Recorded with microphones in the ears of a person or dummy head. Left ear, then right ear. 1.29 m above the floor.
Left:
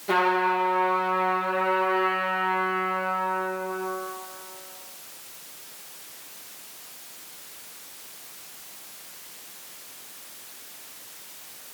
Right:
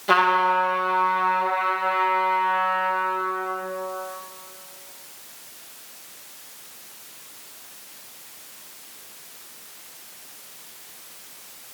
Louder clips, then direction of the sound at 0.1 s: Right 4 dB; 25° right (ahead or behind).